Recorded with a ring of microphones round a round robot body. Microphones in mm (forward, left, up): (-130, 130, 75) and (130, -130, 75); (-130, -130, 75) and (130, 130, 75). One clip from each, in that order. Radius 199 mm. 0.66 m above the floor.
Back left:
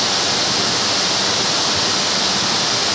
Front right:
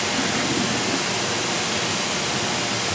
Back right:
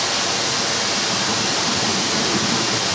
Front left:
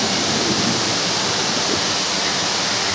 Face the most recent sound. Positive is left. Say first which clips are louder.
# back left 6 dB, front left 1 dB
turn(degrees=135)